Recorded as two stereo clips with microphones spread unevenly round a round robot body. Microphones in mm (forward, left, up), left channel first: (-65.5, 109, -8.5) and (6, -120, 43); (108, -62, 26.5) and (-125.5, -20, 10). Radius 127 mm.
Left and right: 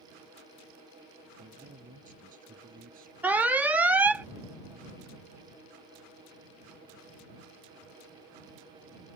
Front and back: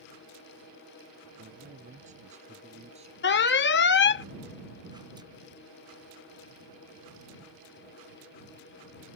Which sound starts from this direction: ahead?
An alarm, at 3.2 s.